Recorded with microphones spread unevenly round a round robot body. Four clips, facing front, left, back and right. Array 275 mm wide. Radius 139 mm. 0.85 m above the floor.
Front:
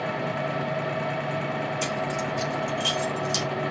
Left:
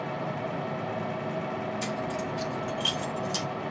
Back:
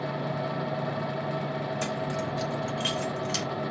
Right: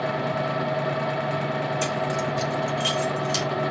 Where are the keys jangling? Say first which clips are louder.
Right 6 dB, front 2 dB; 145° right, 3 m; by 3.5 s 110° right, 2.5 m.